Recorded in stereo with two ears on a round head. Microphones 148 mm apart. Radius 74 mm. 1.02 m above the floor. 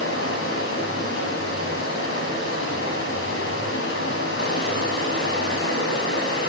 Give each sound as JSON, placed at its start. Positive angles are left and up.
{"t": 0.0, "sound": "running water", "side_deg": 85, "distance_m": 8.0}